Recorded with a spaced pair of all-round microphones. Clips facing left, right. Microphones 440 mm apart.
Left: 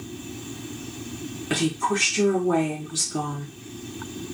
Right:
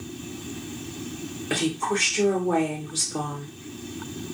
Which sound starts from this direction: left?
A woman speaking, at 1.5 s.